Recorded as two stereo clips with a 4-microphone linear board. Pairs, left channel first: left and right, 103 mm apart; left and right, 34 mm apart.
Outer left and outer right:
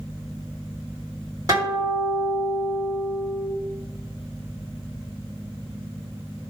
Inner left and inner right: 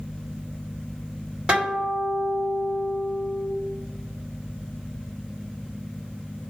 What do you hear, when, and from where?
1.5 s a guitar: 35° right (ahead or behind), 1.8 m